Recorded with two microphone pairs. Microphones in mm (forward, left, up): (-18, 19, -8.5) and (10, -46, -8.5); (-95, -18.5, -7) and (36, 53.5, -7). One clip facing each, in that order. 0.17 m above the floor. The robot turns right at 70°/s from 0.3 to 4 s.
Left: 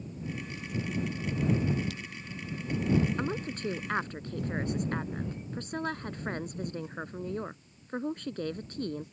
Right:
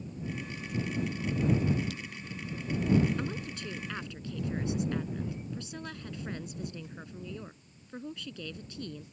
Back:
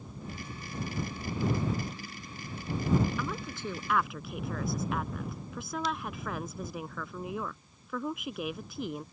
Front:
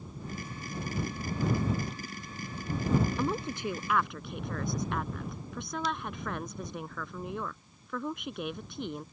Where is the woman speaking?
65° left; by 9.0 s 125° left.